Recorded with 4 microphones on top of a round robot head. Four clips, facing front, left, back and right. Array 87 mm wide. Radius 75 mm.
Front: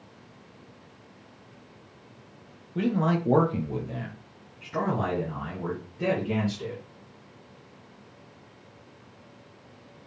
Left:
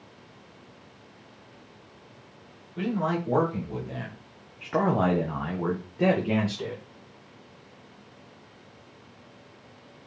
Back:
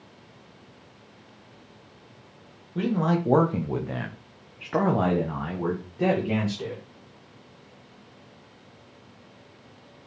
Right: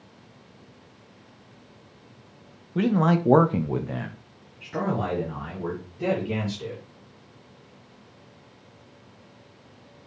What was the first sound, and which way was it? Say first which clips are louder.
A man speaking: right 6 dB, back 1 dB; 95° right.